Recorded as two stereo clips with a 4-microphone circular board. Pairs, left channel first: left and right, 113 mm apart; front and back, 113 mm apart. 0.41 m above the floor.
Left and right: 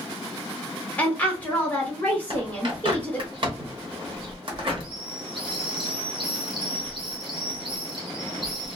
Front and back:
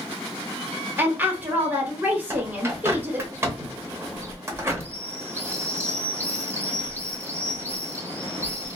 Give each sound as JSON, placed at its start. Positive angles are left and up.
{"t": 1.0, "sound": "a woman speaking", "azimuth_deg": 140, "distance_m": 0.8}
{"t": 2.3, "sound": "a bird", "azimuth_deg": -115, "distance_m": 0.8}